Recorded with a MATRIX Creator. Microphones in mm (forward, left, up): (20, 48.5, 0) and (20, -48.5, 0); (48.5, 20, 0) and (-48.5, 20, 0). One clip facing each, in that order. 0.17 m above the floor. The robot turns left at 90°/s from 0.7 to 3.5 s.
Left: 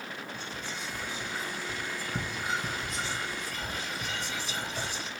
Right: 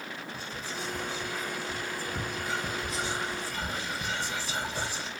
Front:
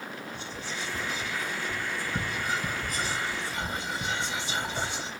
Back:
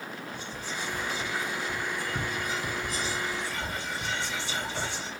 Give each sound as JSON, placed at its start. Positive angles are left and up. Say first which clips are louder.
{"t": 0.3, "sound": "whispering", "louder": "right 1 dB, back 1 dB", "azimuth_deg": -170, "distance_m": 2.0}